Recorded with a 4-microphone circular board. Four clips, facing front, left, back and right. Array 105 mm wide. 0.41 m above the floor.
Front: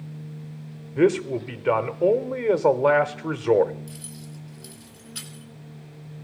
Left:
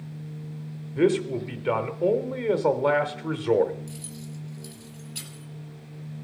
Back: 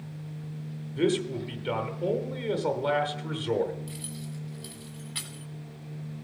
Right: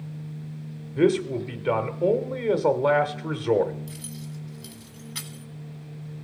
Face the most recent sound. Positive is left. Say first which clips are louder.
# right 1 dB, back 1 dB
turn(degrees=-120)